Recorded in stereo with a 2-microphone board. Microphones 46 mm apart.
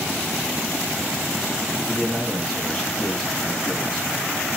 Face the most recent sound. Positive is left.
turn(degrees=5)  # may be behind; listen again after turning